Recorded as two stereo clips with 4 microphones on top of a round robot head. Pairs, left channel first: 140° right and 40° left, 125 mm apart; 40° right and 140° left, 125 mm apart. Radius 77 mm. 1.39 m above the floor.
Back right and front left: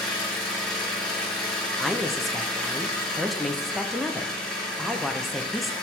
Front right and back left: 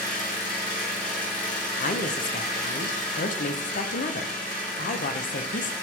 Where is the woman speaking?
50° right, 0.8 m.